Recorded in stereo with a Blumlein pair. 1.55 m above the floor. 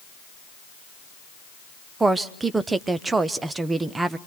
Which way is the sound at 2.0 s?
15° right.